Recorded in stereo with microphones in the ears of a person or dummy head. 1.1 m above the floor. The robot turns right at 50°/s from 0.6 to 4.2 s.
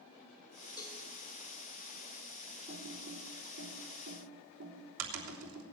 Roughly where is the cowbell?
Centre.